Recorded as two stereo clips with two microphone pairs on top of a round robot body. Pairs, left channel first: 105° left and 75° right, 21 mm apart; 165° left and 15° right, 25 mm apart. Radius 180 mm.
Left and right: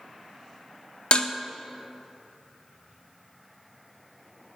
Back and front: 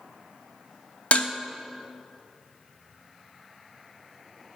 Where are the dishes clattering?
135° left, 1.1 m.